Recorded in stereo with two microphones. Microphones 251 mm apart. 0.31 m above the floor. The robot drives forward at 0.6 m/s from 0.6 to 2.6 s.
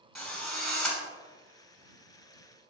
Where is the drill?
Centre (ahead or behind), 2 m.